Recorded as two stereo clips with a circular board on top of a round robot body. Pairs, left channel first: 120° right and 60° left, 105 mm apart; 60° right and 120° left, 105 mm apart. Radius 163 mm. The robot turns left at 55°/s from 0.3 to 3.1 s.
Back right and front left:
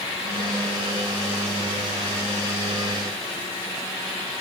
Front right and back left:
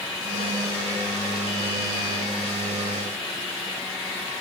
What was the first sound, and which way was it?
Only background noise.